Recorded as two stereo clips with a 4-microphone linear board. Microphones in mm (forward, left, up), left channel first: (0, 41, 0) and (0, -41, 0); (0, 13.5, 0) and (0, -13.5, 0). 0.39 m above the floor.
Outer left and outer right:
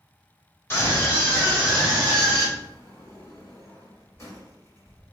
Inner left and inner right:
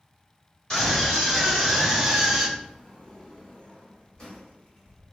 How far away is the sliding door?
About 1.1 m.